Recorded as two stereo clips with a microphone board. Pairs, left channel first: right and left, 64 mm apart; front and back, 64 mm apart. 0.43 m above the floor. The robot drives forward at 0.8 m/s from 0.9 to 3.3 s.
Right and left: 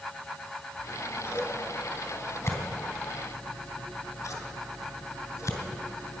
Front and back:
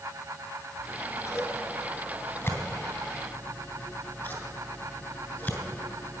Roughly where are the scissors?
Ahead right.